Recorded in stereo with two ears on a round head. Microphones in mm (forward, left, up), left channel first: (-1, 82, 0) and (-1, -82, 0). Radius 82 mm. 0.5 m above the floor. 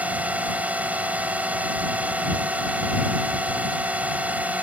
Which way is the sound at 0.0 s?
10° right (ahead or behind).